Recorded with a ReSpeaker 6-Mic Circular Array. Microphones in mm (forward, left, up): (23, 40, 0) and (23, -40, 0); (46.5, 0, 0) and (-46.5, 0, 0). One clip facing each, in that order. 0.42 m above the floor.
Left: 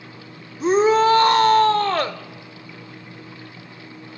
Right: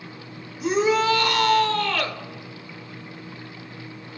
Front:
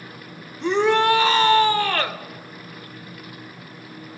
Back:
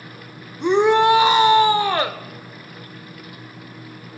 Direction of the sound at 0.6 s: 120° left.